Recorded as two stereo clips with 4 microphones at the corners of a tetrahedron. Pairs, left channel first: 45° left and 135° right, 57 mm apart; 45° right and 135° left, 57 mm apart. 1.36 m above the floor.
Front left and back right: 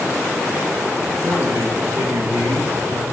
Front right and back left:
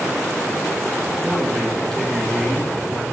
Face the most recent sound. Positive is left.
turn(degrees=-130)